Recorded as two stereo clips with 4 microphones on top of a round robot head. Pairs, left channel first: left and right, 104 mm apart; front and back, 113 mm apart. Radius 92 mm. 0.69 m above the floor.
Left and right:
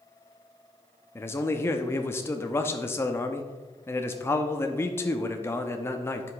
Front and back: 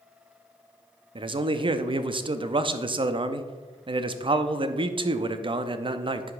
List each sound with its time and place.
1.1 s a man speaking: 150° left, 0.7 m